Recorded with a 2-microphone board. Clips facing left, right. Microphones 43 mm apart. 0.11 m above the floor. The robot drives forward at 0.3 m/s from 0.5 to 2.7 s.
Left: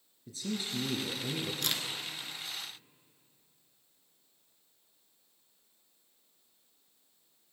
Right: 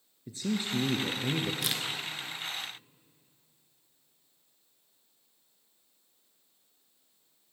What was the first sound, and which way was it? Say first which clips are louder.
A man speaking: right 5 dB; 30° right (ahead or behind).